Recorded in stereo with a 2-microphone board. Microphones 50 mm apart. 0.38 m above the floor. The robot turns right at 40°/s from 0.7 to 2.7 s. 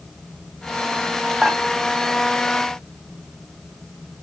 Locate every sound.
1.4 s dishes clattering: 20° right (ahead or behind), 1.6 m; by 1.6 s 15° right (ahead or behind), 1.6 m